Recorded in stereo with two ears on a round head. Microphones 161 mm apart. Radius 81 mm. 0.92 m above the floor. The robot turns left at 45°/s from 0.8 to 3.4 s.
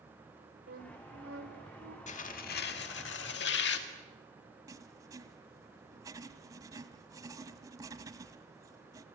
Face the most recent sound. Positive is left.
turn(degrees=-20)  # may be behind; listen again after turning